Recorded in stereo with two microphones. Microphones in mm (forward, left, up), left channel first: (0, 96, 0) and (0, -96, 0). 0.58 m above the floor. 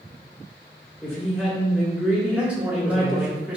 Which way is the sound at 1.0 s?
Centre (ahead or behind).